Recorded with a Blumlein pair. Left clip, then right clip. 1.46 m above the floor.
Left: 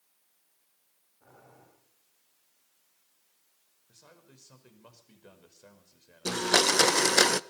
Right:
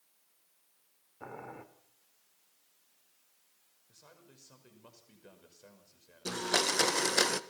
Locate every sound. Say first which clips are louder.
1.2 s boiling: right 11 dB; 50° right, 3 m
3.9 s a man speaking: left 2 dB; 10° left, 5.5 m
6.2 s a blender: left 6 dB; 20° left, 0.6 m